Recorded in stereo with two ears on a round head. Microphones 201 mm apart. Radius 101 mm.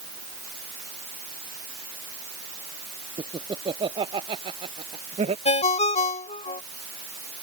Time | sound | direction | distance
3.2 | laughter | 20° right (ahead or behind) | ?
5.5 | a ringtone | 30° left (ahead or behind) | ?